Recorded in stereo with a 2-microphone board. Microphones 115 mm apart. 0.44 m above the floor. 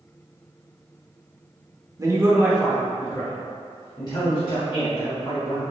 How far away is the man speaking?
About 0.9 m.